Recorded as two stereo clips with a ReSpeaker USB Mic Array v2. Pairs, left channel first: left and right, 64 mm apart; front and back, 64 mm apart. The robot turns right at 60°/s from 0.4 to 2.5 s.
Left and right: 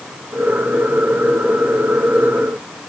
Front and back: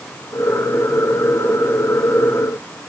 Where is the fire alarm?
I don't hear a fire alarm.